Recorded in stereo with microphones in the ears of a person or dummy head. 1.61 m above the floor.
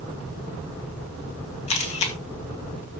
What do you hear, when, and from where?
1.7 s a camera shutter: 35° left (ahead or behind), 1.5 m